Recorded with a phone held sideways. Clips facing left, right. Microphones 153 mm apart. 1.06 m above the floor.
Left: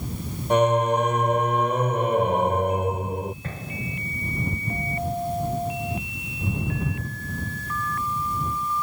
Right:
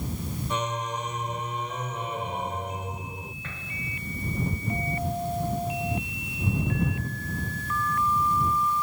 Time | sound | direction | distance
0.5 | singing | 60° left (ahead or behind) | ?
3.4 | an explosion | 40° left (ahead or behind) | ?